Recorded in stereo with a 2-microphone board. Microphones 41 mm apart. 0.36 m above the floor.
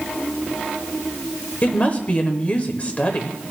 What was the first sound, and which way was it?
A woman speaking, 35° left (ahead or behind).